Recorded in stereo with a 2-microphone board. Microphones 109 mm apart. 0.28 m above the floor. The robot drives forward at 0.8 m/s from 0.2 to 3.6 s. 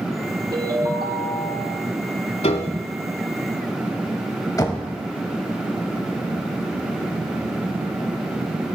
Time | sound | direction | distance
0.5 | a ringtone | 40° right (ahead or behind) | 4 m
2.4 | a piano | 75° left (ahead or behind) | 0.7 m
4.6 | knocking | 35° left (ahead or behind) | 0.8 m